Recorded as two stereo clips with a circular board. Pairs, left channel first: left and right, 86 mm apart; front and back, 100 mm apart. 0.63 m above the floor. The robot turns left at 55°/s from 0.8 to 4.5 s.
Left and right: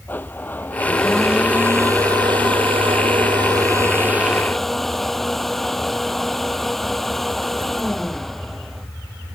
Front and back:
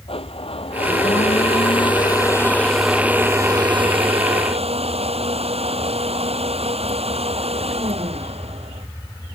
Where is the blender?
20° left; by 8.9 s straight behind.